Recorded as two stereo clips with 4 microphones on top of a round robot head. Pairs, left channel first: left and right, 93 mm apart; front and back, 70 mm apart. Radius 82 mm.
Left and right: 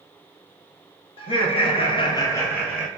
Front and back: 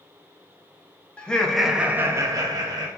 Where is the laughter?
75° left, 0.8 m; by 2.9 s 175° left, 0.7 m.